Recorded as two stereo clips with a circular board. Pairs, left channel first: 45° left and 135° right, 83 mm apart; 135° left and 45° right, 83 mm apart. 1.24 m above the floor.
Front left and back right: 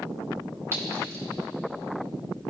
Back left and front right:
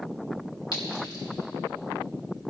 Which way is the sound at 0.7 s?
165° left.